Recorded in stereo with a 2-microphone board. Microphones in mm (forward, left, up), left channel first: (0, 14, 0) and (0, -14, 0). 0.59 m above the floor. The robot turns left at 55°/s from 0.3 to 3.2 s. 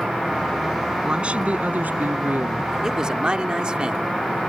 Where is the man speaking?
15° right (ahead or behind); by 4.4 s 30° right (ahead or behind).